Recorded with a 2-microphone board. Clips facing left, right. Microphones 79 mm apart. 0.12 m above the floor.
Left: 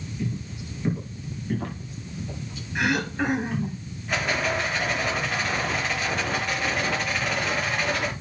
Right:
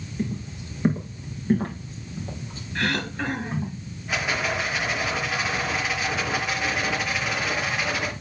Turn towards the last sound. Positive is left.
turn(degrees=-5)  # may be behind; listen again after turning